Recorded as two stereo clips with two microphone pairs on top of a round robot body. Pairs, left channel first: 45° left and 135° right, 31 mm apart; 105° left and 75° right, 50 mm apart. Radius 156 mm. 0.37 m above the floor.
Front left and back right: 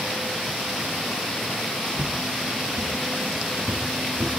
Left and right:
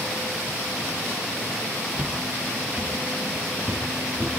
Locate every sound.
1.9 s footsteps: 145° right, 2.5 m; by 4.3 s 150° right, 4 m